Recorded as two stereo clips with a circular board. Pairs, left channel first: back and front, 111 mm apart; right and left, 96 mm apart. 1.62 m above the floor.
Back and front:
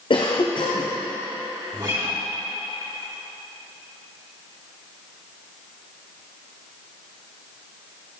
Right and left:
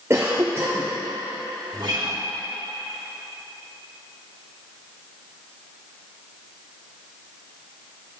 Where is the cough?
150° left, 0.6 m.